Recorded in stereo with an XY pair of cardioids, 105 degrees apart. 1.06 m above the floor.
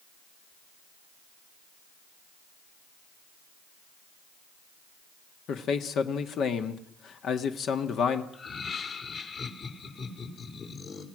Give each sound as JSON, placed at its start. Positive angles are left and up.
{"t": 5.5, "sound": "a man speaking", "azimuth_deg": 65, "distance_m": 1.6}
{"t": 8.3, "sound": "laughter", "azimuth_deg": 50, "distance_m": 4.5}